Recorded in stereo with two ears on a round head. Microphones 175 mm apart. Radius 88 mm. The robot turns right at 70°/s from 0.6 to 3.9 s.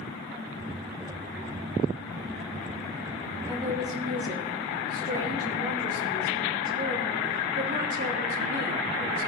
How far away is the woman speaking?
About 1.7 m.